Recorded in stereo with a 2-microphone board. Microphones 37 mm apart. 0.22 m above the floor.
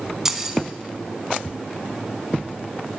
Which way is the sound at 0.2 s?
10° right (ahead or behind).